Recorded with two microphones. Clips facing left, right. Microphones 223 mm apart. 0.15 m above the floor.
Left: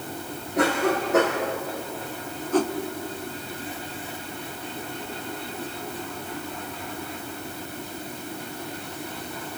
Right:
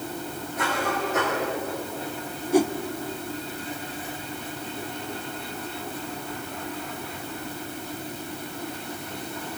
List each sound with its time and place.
0.6 s a cough: 70° left (ahead or behind), 6.5 m
2.5 s a whoosh: 10° right (ahead or behind), 1.1 m